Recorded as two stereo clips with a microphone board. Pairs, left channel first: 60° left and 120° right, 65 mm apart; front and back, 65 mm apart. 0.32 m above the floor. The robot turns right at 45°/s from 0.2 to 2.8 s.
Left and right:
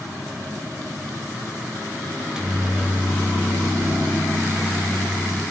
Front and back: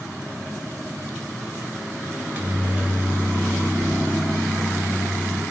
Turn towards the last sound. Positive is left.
turn(degrees=-170)